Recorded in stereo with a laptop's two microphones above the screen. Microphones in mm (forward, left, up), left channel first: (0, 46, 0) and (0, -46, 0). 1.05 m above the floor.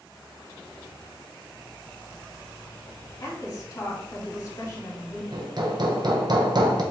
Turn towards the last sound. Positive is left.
turn(degrees=-50)  # may be behind; listen again after turning